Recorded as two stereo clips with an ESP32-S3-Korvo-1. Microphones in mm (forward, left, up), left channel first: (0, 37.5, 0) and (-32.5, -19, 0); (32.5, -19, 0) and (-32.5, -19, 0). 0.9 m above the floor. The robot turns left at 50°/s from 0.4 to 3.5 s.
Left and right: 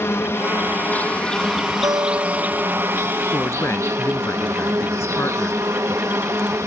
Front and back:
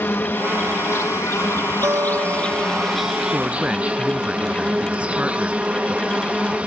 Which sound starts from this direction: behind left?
A woman speaking, at 3.3 s.